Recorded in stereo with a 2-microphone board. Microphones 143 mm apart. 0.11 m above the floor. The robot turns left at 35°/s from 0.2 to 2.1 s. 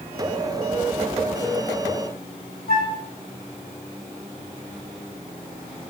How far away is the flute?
About 6.5 m.